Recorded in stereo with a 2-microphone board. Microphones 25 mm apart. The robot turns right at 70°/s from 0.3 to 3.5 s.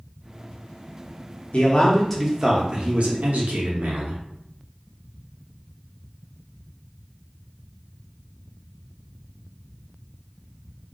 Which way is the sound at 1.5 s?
130° left.